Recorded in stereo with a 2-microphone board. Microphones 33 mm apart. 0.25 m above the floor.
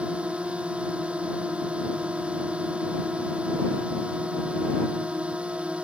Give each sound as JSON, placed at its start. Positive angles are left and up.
{"t": 0.0, "sound": "a drone", "side_deg": -35}